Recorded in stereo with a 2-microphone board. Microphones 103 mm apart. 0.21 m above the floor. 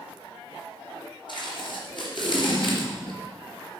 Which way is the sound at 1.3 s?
50° left (ahead or behind).